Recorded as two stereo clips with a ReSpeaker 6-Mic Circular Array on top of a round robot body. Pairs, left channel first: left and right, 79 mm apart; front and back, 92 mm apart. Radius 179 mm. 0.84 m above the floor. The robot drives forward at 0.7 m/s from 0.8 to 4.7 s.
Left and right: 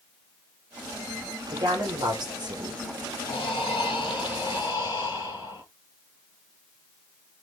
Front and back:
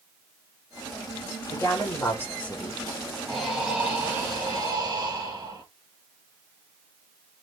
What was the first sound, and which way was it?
A woman speaking, 55° right.